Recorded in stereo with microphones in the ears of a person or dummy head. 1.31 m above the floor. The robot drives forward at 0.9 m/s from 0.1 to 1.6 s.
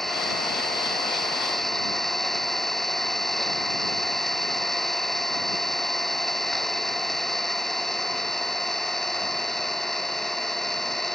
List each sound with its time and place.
0.0 s an engine running: centre (ahead or behind)